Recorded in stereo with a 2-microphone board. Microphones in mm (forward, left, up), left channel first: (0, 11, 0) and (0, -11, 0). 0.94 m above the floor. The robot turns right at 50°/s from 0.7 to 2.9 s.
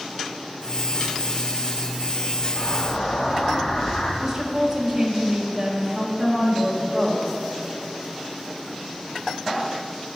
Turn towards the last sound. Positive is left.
turn(degrees=-20)  # may be behind; listen again after turning